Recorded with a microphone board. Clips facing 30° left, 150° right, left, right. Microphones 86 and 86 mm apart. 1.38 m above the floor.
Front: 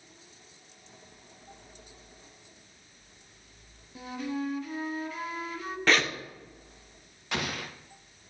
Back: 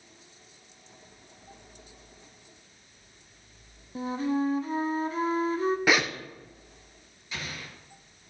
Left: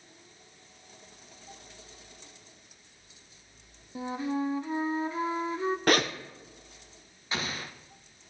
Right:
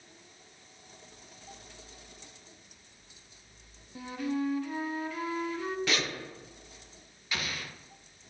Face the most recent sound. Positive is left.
turn(degrees=35)